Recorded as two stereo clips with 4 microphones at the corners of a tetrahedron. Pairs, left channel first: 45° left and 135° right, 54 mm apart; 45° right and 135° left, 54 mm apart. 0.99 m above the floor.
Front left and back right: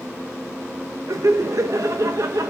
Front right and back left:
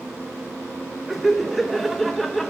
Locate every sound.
1.1 s laughter: 135° right, 0.7 m